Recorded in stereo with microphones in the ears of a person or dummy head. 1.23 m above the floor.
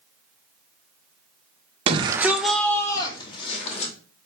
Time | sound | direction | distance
1.9 | a shout | 35° right (ahead or behind) | 0.8 m